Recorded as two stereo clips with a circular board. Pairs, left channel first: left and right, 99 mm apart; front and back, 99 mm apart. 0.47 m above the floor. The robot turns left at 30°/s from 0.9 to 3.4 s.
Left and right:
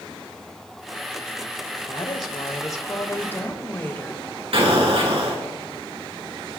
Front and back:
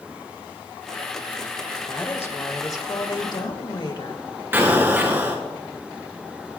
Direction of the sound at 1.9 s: 70° left.